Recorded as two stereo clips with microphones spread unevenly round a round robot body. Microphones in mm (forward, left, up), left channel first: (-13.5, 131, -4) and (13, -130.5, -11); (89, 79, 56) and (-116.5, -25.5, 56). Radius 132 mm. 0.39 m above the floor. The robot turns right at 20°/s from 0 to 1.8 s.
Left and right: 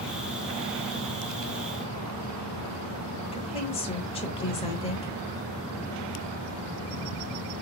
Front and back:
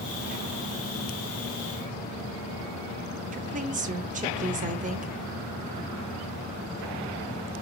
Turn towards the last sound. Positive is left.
turn(degrees=160)